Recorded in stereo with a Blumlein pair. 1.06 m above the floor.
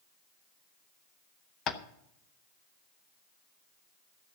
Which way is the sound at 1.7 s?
30° left.